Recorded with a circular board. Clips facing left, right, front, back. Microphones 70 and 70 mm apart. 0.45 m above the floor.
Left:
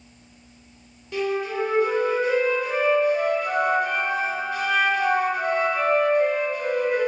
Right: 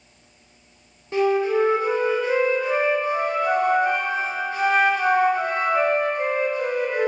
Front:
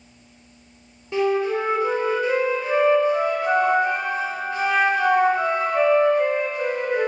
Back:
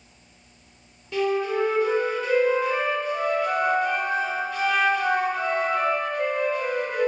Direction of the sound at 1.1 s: 55° right.